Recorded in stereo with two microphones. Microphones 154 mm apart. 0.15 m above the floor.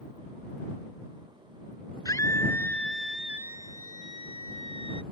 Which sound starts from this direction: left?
A scream, at 2.0 s.